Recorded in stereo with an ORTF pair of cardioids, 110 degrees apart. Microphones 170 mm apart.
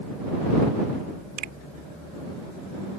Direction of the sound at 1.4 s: 65° right.